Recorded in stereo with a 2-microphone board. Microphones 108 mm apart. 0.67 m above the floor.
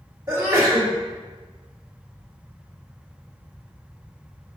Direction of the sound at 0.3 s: 30° right (ahead or behind).